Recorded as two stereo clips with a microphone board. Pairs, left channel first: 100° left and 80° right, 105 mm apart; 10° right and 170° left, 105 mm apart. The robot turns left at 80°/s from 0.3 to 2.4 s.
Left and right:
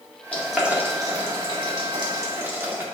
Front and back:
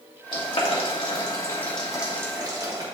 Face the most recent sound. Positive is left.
turn(degrees=-140)